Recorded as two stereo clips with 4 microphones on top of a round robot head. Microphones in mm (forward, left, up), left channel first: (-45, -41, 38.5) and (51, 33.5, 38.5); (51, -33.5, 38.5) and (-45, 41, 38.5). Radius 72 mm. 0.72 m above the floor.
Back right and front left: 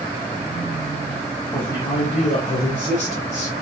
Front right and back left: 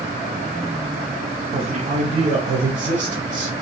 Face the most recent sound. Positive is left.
turn(degrees=-160)